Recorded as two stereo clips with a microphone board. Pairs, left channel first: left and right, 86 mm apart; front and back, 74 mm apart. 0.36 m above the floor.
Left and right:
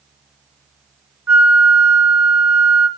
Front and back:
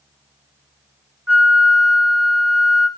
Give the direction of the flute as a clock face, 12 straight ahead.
4 o'clock.